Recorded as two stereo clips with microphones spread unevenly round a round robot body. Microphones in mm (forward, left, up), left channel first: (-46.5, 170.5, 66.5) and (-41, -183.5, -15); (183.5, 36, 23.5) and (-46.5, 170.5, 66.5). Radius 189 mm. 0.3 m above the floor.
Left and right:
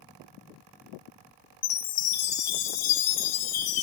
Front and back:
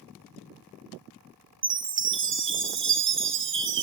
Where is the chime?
105° left, 1.3 m.